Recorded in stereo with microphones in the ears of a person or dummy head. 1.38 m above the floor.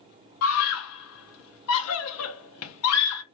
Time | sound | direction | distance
0.4 | a scream | 85° left | 0.8 m